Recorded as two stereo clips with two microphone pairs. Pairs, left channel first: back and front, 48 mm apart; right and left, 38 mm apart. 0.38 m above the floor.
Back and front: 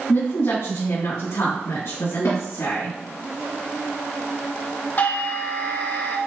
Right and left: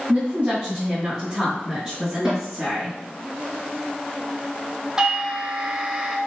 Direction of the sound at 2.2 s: 170° left.